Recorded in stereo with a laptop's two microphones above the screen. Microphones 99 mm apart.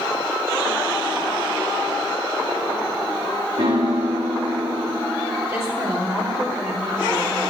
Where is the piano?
75° right (ahead or behind), 1.9 m.